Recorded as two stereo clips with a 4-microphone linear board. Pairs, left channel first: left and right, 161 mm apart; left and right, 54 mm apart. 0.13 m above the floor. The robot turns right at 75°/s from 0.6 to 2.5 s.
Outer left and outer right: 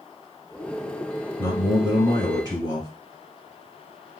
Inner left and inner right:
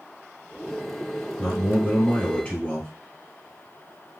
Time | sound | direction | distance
1.4 | a man speaking | 15° left (ahead or behind) | 1.2 m